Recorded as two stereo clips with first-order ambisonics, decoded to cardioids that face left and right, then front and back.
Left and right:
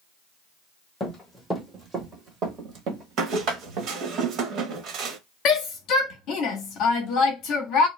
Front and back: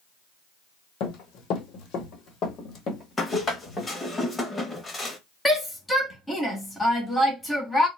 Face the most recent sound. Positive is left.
turn(degrees=80)